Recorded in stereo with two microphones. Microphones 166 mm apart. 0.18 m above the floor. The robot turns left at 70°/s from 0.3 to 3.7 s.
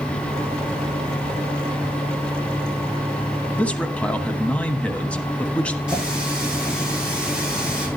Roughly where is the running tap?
Centre.